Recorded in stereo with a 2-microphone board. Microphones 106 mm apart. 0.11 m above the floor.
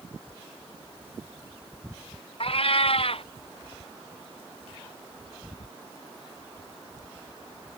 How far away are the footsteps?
No footsteps in this recording.